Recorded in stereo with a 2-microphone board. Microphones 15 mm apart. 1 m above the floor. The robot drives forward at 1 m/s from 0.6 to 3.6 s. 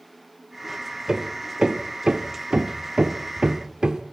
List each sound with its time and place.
1.1 s hammering: 40° right (ahead or behind), 2 m; by 4.0 s 60° right (ahead or behind), 1.6 m